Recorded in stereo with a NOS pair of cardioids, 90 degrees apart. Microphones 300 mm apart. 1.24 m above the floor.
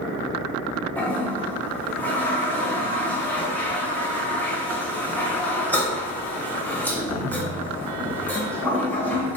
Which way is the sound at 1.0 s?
5° left.